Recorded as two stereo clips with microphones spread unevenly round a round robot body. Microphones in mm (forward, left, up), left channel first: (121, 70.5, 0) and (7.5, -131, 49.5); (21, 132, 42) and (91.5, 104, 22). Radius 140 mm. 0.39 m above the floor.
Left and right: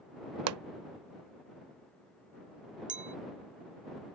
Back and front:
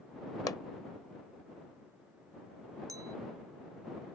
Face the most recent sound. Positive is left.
turn(degrees=-55)